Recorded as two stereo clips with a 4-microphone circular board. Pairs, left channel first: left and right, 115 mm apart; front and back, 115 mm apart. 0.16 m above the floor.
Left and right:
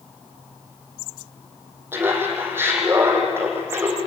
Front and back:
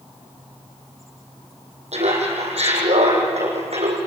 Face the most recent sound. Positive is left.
turn(degrees=-160)